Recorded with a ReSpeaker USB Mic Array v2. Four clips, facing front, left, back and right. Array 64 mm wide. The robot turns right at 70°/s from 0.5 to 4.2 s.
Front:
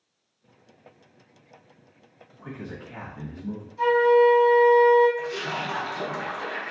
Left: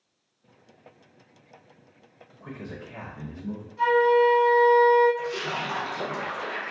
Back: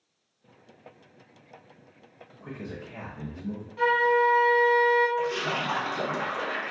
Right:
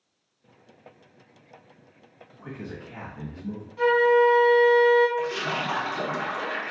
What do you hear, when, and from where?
2.4 s a man speaking: 50° right, 1.5 m; by 3.7 s 40° left, 1.5 m
3.8 s a flute: 165° right, 1.3 m; by 5.1 s 135° right, 1.3 m
5.2 s a splash: 135° right, 1.5 m